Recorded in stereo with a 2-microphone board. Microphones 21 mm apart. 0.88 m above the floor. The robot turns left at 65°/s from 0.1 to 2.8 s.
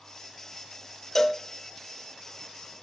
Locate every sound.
1.1 s a cowbell: 15° left (ahead or behind), 0.5 m; by 1.4 s 5° left (ahead or behind), 0.5 m